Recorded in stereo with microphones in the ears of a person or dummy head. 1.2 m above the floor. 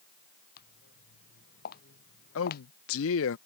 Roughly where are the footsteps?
Left.